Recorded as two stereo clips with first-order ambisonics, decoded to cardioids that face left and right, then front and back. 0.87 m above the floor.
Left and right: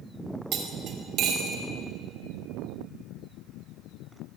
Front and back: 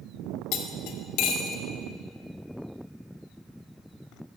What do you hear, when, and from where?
0.5 s cutlery clinking: 35° right, 1.5 m